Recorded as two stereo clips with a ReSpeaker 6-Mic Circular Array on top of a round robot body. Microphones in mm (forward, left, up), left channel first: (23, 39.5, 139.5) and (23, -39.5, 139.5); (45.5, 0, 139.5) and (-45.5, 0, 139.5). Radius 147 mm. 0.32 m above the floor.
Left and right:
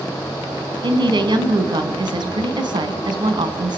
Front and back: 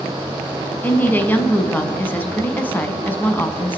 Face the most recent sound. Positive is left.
turn(degrees=-70)